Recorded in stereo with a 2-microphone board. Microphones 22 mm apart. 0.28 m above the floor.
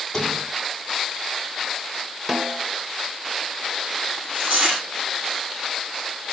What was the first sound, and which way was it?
A sliding door, 15° left (ahead or behind).